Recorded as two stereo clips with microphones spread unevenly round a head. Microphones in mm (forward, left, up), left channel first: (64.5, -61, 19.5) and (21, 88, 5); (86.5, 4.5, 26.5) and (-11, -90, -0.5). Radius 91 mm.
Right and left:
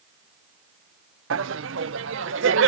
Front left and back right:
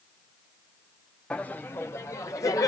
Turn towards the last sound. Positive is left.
turn(degrees=120)